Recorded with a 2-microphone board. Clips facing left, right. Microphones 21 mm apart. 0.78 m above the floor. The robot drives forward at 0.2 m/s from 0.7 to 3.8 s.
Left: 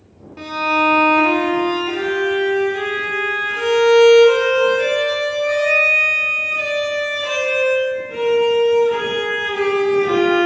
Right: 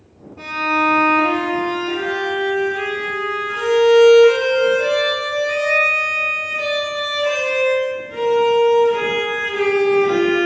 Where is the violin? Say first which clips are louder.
Left 1 dB; 75° left (ahead or behind), 0.6 m; by 10.5 s 40° left (ahead or behind), 1.0 m.